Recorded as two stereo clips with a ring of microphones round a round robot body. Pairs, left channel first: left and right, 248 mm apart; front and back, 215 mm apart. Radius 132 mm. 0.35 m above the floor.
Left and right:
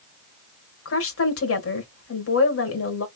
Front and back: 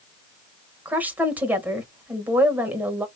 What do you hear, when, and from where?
0.8 s a woman speaking: 100° left, 1.5 m